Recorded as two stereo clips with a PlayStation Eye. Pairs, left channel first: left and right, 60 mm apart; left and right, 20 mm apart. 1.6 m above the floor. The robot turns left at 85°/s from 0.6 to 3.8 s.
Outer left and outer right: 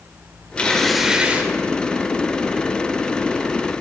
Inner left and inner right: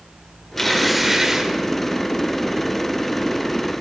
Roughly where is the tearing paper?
Ahead left.